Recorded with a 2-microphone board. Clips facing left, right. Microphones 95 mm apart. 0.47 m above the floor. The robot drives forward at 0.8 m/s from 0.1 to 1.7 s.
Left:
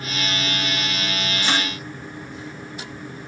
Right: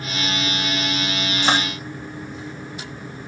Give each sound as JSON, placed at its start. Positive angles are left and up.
{"t": 1.5, "sound": "dishes clattering", "side_deg": -60, "distance_m": 1.6}